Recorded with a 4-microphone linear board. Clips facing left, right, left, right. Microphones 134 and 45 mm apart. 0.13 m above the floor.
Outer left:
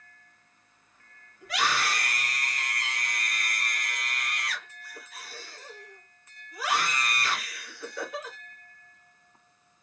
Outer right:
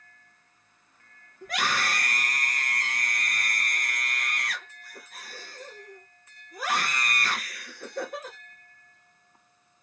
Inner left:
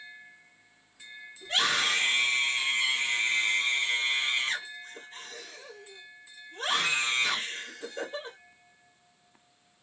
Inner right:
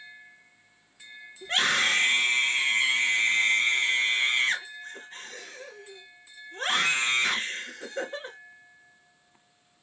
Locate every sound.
1.4 s a scream: 50° right (ahead or behind), 2 m